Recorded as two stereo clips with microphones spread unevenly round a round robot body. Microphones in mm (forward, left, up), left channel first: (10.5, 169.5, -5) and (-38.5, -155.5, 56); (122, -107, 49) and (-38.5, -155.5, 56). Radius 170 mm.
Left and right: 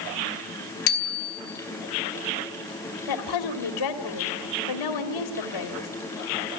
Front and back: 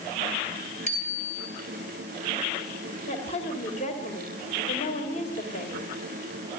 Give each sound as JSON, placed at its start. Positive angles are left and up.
{"t": 0.9, "sound": "a bicycle bell", "azimuth_deg": 80, "distance_m": 2.5}
{"t": 3.1, "sound": "a woman speaking", "azimuth_deg": 80, "distance_m": 2.5}